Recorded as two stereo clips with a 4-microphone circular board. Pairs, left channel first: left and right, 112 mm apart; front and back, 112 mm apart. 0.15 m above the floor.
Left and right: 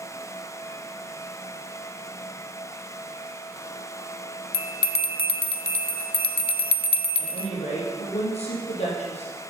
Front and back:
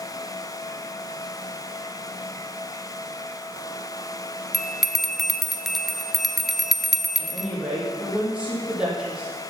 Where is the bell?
90° left, 0.9 m.